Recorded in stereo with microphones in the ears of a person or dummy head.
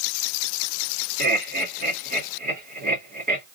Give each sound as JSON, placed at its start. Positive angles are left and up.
{"t": 1.2, "sound": "laughter", "side_deg": -40, "distance_m": 2.0}